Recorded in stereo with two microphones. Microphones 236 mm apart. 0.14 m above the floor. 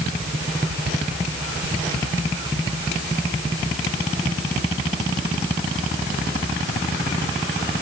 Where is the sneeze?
I don't hear a sneeze.